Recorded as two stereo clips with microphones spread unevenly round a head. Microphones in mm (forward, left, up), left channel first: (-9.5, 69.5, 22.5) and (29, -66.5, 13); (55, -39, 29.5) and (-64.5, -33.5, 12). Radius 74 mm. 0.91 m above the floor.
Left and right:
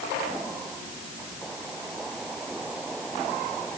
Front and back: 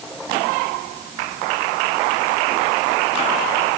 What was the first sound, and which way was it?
Only background noise.